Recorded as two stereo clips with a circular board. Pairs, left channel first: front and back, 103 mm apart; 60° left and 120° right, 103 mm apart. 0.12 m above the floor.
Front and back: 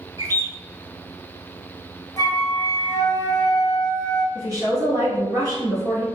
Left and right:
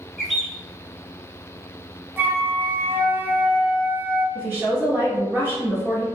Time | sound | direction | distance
0.2 | a bird | 150° left | 0.6 m
2.2 | a flute | 50° right | 0.5 m
4.3 | a woman speaking | 175° right | 1.4 m